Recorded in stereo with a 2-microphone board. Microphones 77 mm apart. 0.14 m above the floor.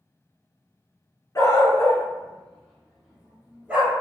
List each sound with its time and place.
1.4 s a dog barking: 45° left (ahead or behind), 0.7 m; by 3.9 s 20° right (ahead or behind), 1.2 m